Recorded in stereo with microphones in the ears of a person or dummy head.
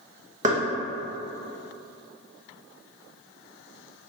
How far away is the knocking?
About 0.8 m.